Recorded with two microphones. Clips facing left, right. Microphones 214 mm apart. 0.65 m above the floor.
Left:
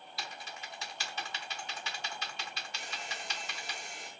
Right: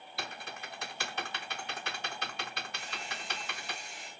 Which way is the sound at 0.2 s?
60° right (ahead or behind).